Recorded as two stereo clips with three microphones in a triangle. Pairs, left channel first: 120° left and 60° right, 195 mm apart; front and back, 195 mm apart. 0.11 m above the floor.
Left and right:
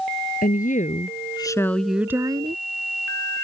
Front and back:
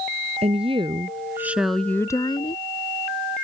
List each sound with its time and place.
0.4 s a woman speaking: 135° left; by 2.6 s 30° right